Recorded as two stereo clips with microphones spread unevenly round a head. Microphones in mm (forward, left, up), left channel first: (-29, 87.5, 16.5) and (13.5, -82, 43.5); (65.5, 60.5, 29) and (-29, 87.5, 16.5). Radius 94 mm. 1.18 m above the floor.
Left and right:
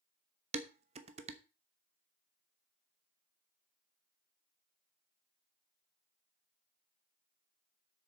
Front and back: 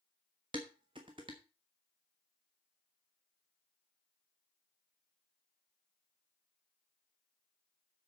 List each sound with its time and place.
0.5 s dishes clattering: 130° right, 1.0 m